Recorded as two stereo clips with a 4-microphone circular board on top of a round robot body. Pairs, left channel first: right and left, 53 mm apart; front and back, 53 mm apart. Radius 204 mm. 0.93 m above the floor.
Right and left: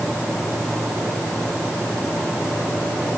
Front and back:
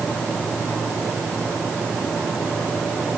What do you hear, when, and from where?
Only background noise.